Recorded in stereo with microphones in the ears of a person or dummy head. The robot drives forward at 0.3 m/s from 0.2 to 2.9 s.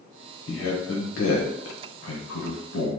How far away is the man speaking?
About 1.1 m.